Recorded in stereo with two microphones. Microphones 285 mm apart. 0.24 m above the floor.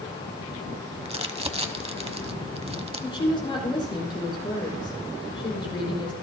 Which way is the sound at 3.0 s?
15° left (ahead or behind).